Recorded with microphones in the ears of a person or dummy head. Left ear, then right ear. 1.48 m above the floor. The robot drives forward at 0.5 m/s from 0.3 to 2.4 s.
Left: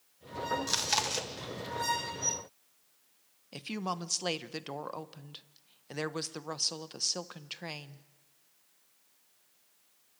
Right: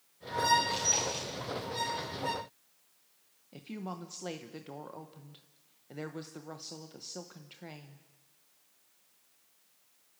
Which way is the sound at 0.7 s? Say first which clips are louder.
Even; 60° left (ahead or behind).